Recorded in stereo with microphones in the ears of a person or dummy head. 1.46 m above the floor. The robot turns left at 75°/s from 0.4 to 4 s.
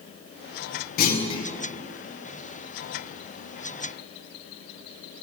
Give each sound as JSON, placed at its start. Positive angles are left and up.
{"t": 1.0, "sound": "a clunk", "azimuth_deg": 55, "distance_m": 0.8}